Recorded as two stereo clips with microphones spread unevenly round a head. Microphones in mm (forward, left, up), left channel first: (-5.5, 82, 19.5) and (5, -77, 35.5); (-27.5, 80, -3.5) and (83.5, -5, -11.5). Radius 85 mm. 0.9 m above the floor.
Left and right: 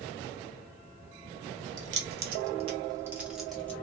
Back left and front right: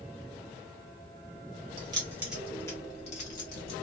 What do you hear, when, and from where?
1.8 s keys jangling: 100° right, 1.0 m; by 3.7 s 175° left, 1.3 m